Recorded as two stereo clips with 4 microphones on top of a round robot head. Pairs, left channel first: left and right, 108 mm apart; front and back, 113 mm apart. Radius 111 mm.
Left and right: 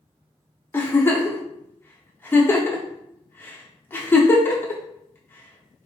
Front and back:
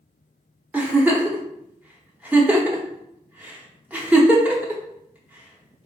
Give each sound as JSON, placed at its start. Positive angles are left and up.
{"t": 0.7, "sound": "a giggle", "azimuth_deg": 125, "distance_m": 1.0}